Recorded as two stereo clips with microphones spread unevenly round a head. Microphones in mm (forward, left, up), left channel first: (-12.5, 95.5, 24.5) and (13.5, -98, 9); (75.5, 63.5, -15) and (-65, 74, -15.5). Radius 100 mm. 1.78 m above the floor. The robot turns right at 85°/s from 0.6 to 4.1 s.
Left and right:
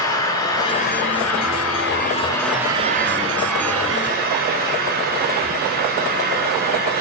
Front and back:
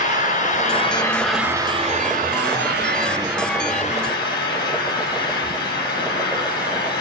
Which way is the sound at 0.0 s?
25° left.